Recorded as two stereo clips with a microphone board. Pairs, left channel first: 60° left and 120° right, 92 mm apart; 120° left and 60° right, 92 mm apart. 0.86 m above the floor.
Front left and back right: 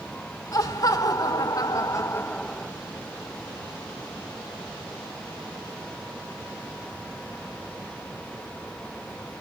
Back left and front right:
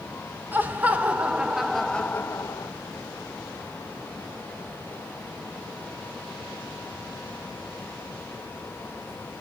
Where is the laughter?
10° left, 1.6 m; by 2.7 s 155° left, 0.7 m.